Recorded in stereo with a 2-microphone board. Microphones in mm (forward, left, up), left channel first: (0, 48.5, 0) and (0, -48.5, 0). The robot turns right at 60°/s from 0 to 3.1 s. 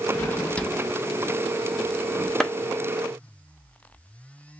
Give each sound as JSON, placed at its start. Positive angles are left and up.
{"t": 0.1, "sound": "a drawer", "side_deg": 25, "distance_m": 0.6}
{"t": 2.4, "sound": "a clap", "side_deg": 5, "distance_m": 0.7}